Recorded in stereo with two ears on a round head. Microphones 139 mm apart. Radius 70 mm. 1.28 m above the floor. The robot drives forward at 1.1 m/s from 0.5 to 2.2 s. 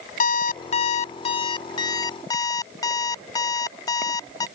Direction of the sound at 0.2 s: 55° left (ahead or behind).